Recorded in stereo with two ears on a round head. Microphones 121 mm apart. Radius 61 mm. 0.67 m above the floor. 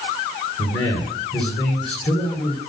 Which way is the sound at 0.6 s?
40° left (ahead or behind).